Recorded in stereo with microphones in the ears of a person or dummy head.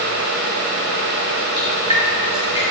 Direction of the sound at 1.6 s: 35° right (ahead or behind).